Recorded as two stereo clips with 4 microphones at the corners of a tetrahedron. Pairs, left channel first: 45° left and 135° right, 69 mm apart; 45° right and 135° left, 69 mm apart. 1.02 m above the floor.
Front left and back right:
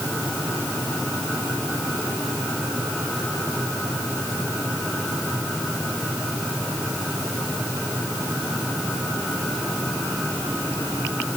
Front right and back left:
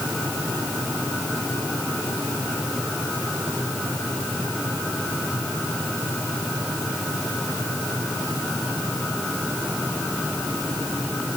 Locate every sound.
Only background noise.